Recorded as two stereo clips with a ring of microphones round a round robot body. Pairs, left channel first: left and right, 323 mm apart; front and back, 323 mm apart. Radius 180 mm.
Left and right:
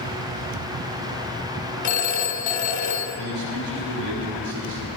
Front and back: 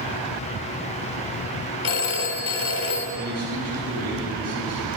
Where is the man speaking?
130° right, 5.5 m.